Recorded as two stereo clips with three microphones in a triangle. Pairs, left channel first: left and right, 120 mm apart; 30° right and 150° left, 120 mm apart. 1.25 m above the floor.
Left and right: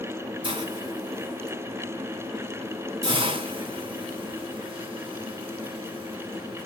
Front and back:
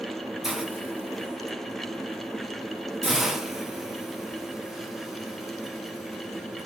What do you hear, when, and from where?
0.4 s a hiss: 125° right, 0.9 m